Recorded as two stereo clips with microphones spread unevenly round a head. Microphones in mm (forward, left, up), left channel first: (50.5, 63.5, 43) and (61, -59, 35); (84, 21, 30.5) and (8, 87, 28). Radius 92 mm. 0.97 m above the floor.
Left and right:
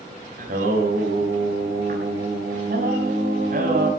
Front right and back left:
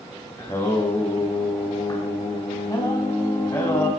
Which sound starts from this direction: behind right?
Singing, at 0.4 s.